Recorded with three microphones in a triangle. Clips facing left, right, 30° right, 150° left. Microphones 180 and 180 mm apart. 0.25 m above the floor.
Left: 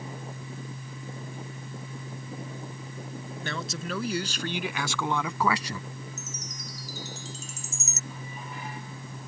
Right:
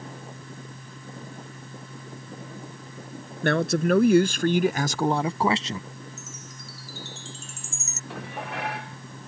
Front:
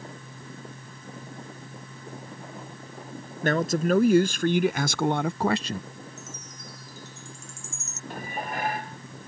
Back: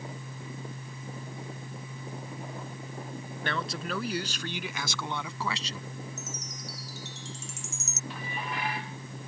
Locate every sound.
3.4 s a man speaking: 70° right; by 5.8 s 25° right
6.2 s a chime: 140° left
8.1 s dishes clattering: 75° right